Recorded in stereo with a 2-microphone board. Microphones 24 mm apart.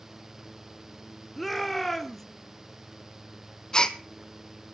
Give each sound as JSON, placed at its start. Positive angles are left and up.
{"t": 1.4, "sound": "a shout", "side_deg": 5, "distance_m": 1.5}
{"t": 3.7, "sound": "a gasp", "side_deg": 30, "distance_m": 0.8}